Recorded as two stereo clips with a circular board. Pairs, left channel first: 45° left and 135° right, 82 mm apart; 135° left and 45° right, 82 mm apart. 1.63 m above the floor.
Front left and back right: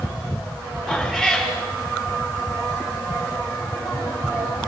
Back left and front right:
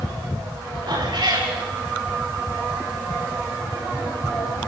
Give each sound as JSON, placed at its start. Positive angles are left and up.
{"t": 0.9, "sound": "a cat meowing", "azimuth_deg": -45, "distance_m": 6.0}